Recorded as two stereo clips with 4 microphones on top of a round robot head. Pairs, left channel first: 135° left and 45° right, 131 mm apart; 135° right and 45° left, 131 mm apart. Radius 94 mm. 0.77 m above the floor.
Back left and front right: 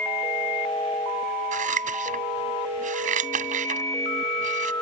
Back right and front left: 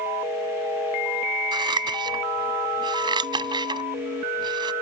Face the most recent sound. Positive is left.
turn(degrees=-15)